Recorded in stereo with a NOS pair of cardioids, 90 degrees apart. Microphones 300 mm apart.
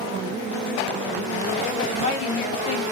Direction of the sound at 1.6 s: 40° left.